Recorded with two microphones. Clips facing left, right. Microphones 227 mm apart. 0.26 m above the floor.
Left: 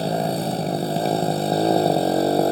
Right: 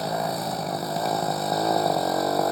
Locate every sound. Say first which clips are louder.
0.0 s a motorcycle: left 5 dB; 30° left (ahead or behind)